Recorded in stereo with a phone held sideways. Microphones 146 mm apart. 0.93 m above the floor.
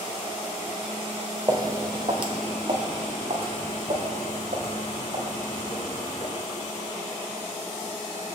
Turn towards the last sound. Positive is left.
turn(degrees=-55)  # may be behind; listen again after turning